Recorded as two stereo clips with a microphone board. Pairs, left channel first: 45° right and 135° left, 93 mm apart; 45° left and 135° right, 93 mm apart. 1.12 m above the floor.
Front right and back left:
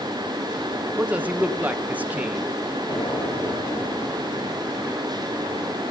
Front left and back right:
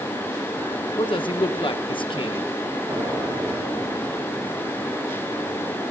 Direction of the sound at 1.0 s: 65° left.